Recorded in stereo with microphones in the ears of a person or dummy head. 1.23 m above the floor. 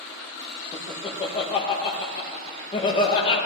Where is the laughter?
30° left (ahead or behind), 1.7 m.